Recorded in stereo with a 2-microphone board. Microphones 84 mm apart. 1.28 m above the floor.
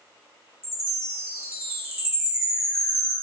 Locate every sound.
0.6 s a chime: 35° right (ahead or behind), 1.2 m